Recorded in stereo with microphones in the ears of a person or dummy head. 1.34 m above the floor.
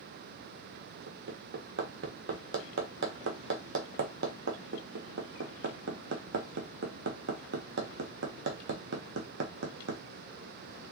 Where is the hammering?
65° right (ahead or behind), 1.2 m.